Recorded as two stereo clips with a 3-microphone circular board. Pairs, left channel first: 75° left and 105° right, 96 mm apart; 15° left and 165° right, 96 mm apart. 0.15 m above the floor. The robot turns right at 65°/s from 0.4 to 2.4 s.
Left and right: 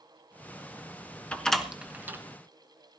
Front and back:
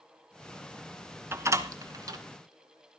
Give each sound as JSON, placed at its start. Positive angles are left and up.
{"t": 1.3, "sound": "a door slam", "azimuth_deg": 145, "distance_m": 1.2}